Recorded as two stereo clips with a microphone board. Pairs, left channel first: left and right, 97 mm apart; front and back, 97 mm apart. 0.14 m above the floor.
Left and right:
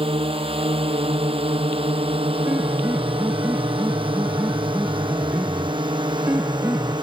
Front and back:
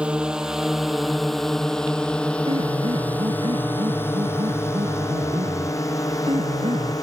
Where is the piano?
160° right.